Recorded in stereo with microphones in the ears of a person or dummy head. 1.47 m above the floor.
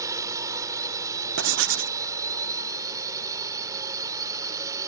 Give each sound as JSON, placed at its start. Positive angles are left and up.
{"t": 0.0, "sound": "a drone", "side_deg": -15}
{"t": 1.4, "sound": "writing", "side_deg": -65}